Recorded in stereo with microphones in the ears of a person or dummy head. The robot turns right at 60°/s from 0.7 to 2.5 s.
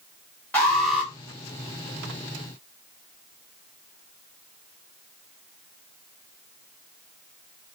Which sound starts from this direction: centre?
An alarm, at 0.5 s.